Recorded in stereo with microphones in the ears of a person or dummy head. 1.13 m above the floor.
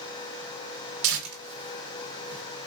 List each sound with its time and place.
1.0 s tearing paper: 65° right (ahead or behind), 1.1 m